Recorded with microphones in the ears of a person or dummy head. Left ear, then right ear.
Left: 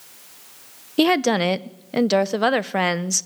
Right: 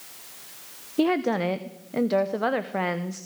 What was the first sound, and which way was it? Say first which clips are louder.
A woman speaking: left 5 dB; 70° left (ahead or behind).